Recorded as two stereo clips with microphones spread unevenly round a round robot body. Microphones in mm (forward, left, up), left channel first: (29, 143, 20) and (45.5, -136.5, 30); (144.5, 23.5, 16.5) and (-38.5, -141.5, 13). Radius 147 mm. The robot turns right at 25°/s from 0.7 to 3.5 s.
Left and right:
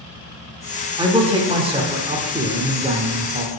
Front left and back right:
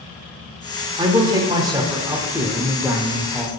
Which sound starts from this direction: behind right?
A man speaking, at 1.0 s.